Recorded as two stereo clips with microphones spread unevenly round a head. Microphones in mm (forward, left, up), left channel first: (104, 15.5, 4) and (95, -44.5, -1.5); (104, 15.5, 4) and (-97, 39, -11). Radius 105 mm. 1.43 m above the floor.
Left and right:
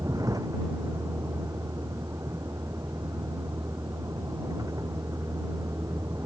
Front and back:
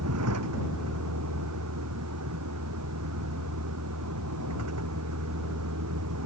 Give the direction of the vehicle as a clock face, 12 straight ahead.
6 o'clock.